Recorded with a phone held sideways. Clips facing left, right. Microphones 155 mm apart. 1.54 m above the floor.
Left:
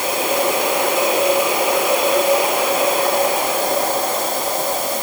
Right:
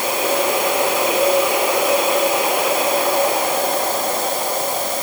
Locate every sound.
Only background noise.